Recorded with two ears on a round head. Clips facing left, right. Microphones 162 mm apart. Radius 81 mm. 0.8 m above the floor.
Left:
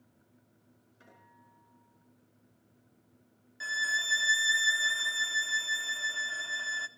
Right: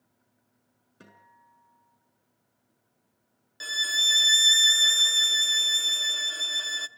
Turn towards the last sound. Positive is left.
turn(degrees=-45)  # may be behind; listen again after turning